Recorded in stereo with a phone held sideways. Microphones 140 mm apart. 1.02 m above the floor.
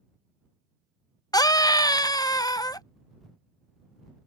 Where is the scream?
25° left (ahead or behind).